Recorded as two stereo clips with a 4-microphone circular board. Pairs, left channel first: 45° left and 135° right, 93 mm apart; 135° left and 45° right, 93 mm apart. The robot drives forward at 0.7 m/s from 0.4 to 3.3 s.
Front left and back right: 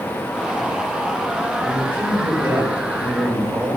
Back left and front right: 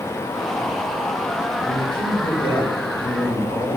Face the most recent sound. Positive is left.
turn(degrees=160)